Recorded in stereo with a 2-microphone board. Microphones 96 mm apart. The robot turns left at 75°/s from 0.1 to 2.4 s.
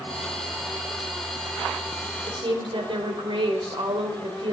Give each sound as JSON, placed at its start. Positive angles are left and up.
{"t": 2.3, "sound": "a woman speaking", "side_deg": -60, "distance_m": 1.8}